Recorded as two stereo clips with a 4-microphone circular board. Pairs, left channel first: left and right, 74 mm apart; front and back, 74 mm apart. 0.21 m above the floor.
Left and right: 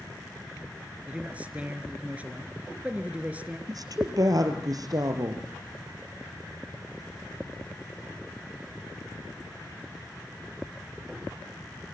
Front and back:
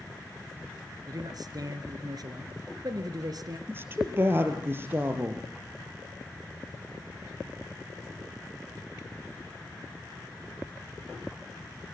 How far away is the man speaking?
About 3 m.